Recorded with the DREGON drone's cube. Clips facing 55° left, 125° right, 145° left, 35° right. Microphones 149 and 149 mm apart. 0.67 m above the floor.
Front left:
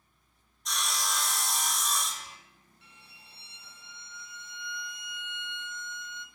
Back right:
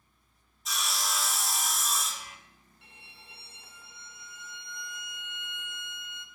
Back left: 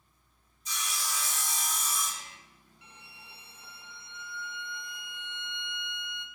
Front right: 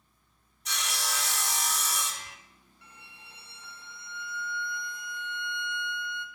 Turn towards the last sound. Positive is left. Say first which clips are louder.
# back right 3 dB, even
turn(degrees=-145)